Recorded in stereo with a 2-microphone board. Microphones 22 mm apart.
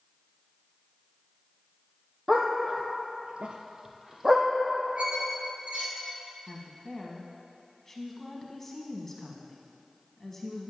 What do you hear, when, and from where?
2.3 s a dog barking: 25° right (ahead or behind), 1.4 m
5.0 s a squeak: 65° right (ahead or behind), 2.5 m
6.5 s a woman speaking: 15° left (ahead or behind), 1.1 m